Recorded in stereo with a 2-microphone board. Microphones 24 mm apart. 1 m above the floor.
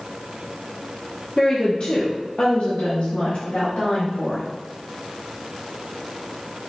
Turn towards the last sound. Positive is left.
turn(degrees=75)  # may be behind; listen again after turning